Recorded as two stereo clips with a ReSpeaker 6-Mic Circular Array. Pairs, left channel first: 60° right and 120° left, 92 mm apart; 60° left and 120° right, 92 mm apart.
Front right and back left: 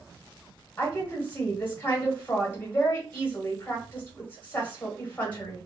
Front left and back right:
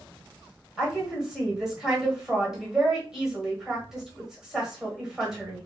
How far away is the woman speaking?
About 1.2 m.